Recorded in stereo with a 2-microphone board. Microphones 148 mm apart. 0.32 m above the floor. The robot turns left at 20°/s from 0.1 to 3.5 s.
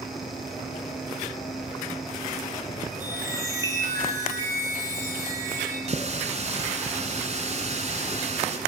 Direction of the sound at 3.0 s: 10° right (ahead or behind).